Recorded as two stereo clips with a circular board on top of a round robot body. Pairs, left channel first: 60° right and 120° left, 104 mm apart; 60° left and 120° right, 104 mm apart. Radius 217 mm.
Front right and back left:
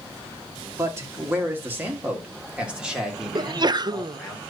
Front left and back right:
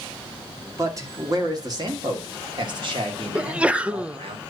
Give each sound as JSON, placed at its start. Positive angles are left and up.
{"t": 0.8, "sound": "a man speaking", "azimuth_deg": 180, "distance_m": 2.5}
{"t": 3.4, "sound": "a sneeze", "azimuth_deg": 165, "distance_m": 0.8}